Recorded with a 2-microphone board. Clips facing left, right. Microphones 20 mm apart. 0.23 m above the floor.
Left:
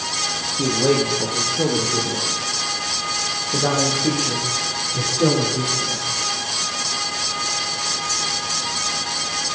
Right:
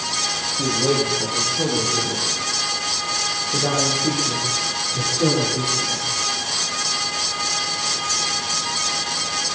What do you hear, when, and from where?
0.5 s a man speaking: 60° left (ahead or behind), 7 m; by 6.0 s 25° left (ahead or behind), 13 m